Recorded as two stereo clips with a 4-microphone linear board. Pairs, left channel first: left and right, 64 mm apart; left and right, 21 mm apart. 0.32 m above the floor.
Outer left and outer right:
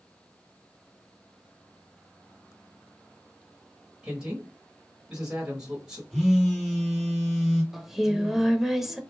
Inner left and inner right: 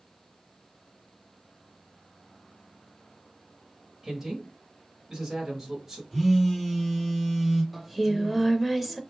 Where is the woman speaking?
15° right (ahead or behind), 1.0 m.